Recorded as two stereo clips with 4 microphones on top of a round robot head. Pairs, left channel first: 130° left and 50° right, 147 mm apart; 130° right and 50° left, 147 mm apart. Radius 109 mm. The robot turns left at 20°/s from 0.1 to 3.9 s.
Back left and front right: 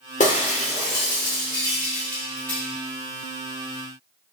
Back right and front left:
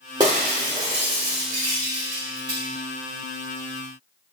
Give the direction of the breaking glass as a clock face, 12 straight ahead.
9 o'clock.